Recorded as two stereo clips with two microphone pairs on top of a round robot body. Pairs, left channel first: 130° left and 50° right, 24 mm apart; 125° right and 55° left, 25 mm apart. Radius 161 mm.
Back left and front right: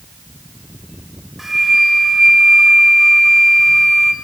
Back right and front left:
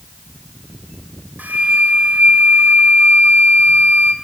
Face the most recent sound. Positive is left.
turn(degrees=40)